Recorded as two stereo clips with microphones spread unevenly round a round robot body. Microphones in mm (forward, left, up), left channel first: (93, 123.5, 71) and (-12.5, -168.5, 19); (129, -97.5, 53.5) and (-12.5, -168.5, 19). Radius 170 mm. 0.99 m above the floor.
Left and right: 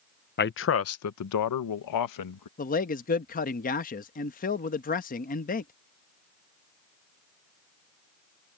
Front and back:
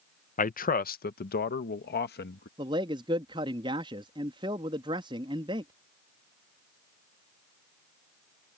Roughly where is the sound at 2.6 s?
Behind left.